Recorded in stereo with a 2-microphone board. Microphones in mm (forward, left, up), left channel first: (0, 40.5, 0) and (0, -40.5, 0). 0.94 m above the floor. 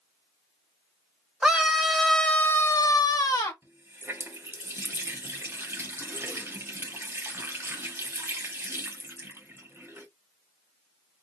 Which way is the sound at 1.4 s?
10° right (ahead or behind).